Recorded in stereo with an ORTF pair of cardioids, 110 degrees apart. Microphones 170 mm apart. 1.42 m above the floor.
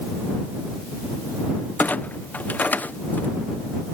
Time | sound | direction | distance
1.8 | a clunk | 10° left | ?